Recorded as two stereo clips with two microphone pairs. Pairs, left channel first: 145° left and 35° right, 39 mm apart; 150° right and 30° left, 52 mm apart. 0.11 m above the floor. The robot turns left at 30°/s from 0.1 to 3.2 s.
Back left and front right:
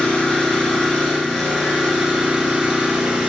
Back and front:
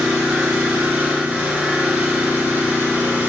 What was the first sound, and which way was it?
An engine running, 95° left.